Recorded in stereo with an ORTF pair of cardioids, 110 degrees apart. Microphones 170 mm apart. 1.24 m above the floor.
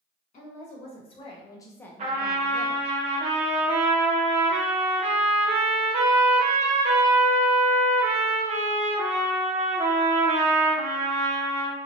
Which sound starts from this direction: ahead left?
A woman speaking, at 0.3 s.